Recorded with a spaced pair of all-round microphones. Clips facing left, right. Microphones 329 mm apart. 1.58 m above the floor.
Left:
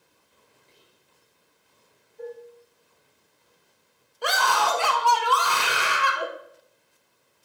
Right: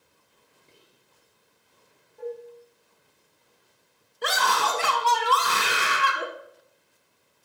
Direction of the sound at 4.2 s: 25° right (ahead or behind).